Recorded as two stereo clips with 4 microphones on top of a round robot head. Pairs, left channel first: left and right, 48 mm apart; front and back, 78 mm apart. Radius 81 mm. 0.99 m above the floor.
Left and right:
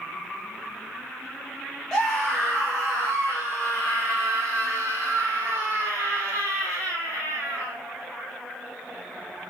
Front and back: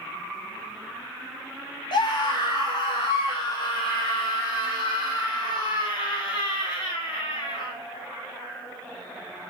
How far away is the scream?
About 1.1 m.